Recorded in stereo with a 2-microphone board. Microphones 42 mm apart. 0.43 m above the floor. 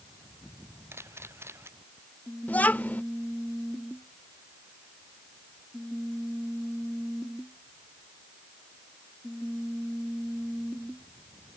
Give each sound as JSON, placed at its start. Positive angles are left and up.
{"t": 0.9, "sound": "a camera shutter", "side_deg": -80}
{"t": 2.5, "sound": "a child speaking", "side_deg": 40}